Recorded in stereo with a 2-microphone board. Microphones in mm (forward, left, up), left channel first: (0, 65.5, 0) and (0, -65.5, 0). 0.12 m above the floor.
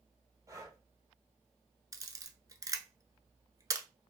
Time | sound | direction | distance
0.5 | breathing | 25° right (ahead or behind) | 1.0 m
1.9 | a camera shutter | 30° right (ahead or behind) | 0.6 m